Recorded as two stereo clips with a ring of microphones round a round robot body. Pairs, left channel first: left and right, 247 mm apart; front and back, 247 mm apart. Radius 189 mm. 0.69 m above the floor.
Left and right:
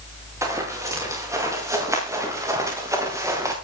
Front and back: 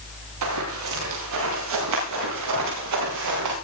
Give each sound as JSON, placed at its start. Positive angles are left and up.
{"t": 0.4, "sound": "running footsteps", "azimuth_deg": -170, "distance_m": 9.5}